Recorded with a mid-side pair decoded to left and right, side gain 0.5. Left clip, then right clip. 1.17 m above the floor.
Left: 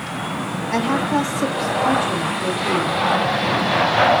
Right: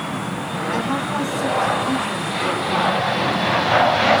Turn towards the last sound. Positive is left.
turn(degrees=45)